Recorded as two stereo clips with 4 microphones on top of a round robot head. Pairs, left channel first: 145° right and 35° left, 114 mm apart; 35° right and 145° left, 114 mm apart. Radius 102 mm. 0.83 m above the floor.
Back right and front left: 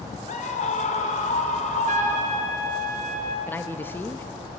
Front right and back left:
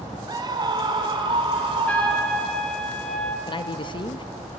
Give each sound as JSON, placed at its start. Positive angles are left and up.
{"t": 0.3, "sound": "a scream", "azimuth_deg": -160, "distance_m": 2.5}
{"t": 1.9, "sound": "a trumpet", "azimuth_deg": 45, "distance_m": 1.9}
{"t": 3.5, "sound": "a man speaking", "azimuth_deg": -75, "distance_m": 1.1}